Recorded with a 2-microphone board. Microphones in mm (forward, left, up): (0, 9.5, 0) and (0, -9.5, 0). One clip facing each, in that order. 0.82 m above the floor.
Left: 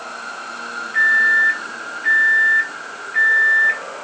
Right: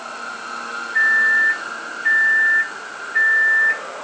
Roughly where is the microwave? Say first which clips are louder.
Left 1 dB; left.